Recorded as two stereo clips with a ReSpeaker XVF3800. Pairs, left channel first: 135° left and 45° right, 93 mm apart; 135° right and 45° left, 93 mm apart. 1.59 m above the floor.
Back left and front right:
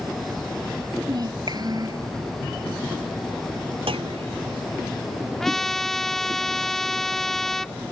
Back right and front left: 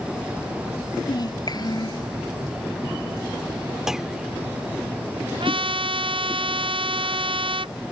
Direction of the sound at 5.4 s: 50° left.